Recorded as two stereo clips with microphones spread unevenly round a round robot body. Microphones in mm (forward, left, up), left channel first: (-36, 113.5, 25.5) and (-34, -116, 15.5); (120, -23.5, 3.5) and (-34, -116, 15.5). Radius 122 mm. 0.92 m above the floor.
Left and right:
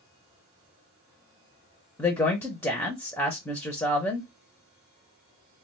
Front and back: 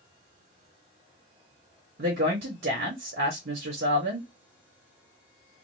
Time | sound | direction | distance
2.0 | a woman speaking | 170° left | 0.9 m